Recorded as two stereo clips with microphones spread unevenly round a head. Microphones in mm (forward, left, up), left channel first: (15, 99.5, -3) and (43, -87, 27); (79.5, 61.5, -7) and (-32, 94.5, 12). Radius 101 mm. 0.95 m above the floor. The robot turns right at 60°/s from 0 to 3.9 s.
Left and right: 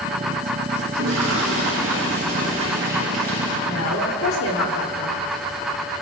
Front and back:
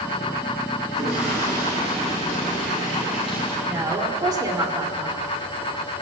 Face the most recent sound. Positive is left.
turn(degrees=105)